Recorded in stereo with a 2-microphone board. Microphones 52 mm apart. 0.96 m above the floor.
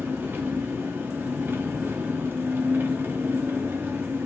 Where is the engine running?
40° right (ahead or behind), 0.8 m.